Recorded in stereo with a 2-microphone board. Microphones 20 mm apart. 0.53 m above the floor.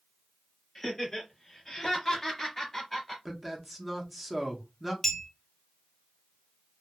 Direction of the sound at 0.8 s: 25° left (ahead or behind).